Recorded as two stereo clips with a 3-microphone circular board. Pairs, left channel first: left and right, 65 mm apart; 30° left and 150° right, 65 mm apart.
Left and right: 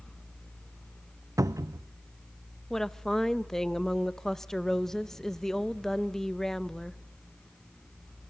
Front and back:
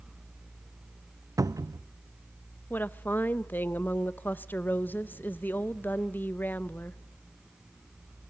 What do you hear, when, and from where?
1.4 s a cupboard door: 120° right, 0.5 m
2.7 s a woman speaking: 10° left, 0.7 m